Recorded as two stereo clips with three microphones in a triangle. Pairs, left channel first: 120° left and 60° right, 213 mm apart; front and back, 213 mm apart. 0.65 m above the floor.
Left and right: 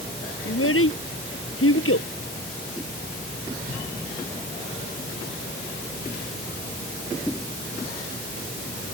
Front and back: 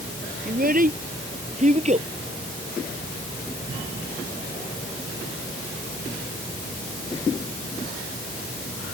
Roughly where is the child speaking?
Behind left.